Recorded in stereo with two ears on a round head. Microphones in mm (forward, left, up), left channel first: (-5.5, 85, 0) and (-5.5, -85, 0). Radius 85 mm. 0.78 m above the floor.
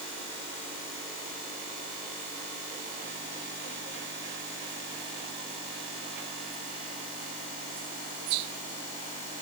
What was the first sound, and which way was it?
Only background noise.